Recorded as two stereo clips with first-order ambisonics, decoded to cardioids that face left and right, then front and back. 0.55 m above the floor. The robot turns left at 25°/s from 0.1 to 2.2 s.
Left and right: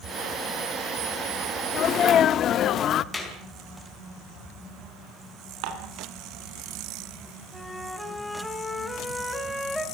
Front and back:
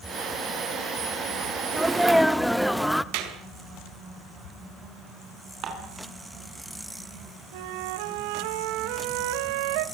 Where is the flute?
175° left, 1.5 m.